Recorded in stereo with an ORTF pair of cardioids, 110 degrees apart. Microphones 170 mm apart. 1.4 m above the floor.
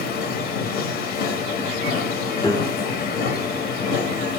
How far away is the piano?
About 0.5 m.